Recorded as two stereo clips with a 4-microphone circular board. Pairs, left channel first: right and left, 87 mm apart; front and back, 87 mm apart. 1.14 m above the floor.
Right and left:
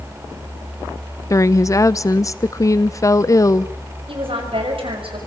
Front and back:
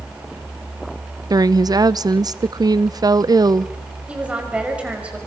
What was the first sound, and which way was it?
A woman speaking, 140° right.